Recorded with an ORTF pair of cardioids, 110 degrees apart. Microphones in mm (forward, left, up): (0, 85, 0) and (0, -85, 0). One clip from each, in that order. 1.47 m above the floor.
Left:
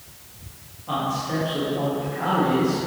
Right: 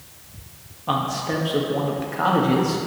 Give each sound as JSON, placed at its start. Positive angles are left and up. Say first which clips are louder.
{"t": 0.9, "sound": "a man speaking", "louder": "right 2 dB", "azimuth_deg": -55, "distance_m": 1.8}